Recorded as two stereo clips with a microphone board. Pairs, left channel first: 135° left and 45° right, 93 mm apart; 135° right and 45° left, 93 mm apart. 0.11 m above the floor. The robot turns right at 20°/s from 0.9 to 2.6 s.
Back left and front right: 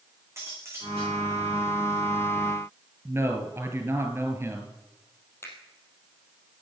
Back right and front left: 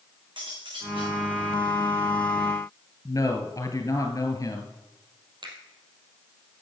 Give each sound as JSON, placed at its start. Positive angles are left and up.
{"t": 0.4, "sound": "cutlery clinking", "azimuth_deg": 15, "distance_m": 5.5}
{"t": 3.0, "sound": "a man speaking", "azimuth_deg": -100, "distance_m": 2.0}
{"t": 5.4, "sound": "a finger snap", "azimuth_deg": 75, "distance_m": 3.0}